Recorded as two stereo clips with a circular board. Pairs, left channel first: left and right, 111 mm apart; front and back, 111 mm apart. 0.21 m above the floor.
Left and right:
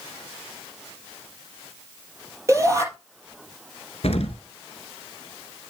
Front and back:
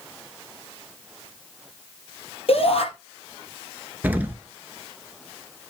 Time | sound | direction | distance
2.5 | a shout | 30° right | 5.5 m
4.0 | an explosion | 105° left | 1.3 m